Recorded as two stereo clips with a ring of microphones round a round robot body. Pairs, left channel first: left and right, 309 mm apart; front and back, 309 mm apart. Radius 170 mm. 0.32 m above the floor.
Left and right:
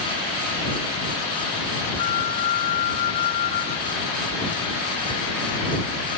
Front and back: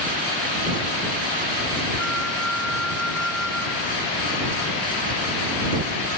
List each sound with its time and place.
2.0 s a flute: 90° left